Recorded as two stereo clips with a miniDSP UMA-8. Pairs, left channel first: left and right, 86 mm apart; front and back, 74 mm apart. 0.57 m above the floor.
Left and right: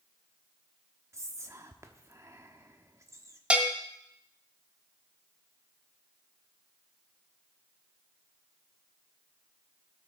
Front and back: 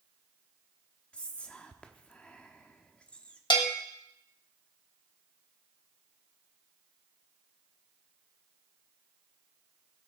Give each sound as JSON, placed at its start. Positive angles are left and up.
{"t": 1.1, "sound": "whispering", "azimuth_deg": -65, "distance_m": 1.0}
{"t": 3.5, "sound": "a bell", "azimuth_deg": -15, "distance_m": 1.3}